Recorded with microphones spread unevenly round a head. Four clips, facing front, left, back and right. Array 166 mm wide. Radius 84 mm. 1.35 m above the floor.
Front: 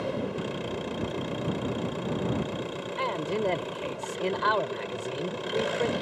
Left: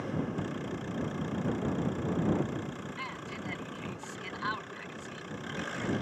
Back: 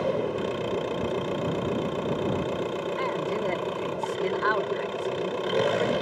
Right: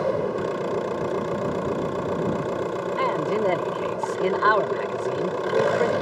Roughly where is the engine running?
Behind right.